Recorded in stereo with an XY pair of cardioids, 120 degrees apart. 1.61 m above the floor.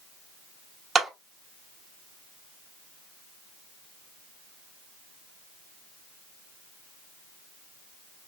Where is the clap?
30° right, 1.9 m.